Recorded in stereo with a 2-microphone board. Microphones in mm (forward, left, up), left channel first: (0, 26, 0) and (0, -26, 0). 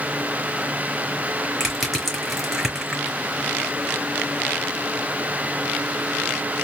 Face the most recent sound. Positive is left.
turn(degrees=5)  # may be behind; listen again after turning